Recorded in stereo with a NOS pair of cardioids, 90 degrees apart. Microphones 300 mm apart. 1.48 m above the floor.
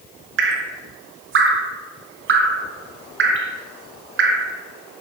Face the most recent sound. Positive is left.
turn(degrees=-40)